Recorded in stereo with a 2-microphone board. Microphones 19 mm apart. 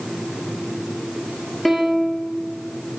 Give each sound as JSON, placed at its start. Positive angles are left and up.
{"t": 1.6, "sound": "a piano", "side_deg": 10, "distance_m": 1.3}